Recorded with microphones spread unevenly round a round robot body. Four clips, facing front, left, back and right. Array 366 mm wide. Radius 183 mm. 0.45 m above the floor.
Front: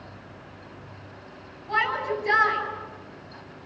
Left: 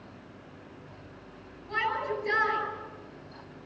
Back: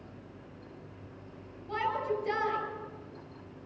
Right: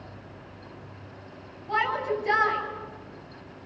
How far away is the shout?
About 10 m.